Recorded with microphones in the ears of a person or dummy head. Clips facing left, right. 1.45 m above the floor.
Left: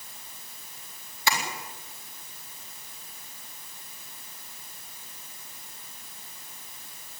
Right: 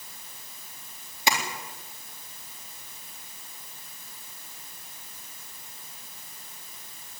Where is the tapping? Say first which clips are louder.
Right 2 dB; 20° right (ahead or behind), 3.5 m.